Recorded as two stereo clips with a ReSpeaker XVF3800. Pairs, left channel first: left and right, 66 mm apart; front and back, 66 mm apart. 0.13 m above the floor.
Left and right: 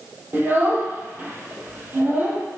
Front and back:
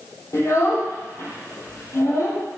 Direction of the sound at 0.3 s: 35° right.